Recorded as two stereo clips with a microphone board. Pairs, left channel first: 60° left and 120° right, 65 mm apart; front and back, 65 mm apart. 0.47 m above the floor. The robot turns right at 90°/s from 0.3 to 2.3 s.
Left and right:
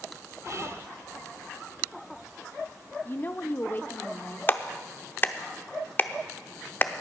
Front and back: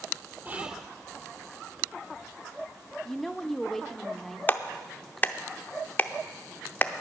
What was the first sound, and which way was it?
Whispering, 125° right.